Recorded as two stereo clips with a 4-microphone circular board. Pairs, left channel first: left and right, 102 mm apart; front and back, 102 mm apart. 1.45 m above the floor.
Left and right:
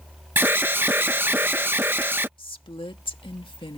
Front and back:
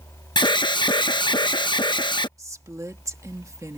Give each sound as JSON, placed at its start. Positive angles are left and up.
{"t": 0.4, "sound": "an alarm", "azimuth_deg": -25}
{"t": 2.4, "sound": "a woman speaking", "azimuth_deg": 120}